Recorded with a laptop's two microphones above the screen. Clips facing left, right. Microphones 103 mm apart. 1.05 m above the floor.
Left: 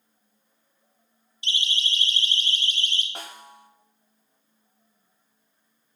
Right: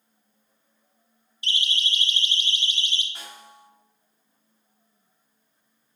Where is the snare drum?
55° left (ahead or behind), 2 m.